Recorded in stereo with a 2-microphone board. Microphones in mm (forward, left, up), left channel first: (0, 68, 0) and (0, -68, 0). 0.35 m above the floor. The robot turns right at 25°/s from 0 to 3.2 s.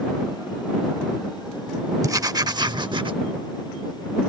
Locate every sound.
2.0 s writing: 25° right (ahead or behind); by 3.1 s 40° right (ahead or behind)